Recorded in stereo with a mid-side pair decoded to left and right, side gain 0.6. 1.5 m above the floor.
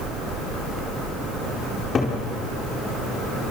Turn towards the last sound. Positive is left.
turn(degrees=35)